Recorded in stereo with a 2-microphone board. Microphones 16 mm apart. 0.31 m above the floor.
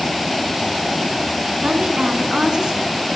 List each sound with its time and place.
1.6 s a woman speaking: 50° right (ahead or behind), 2.5 m